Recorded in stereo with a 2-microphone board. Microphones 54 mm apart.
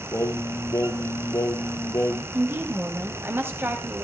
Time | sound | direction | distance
0.1 | singing | 80° left | 1.1 m
2.3 | a woman speaking | 50° right (ahead or behind) | 2.5 m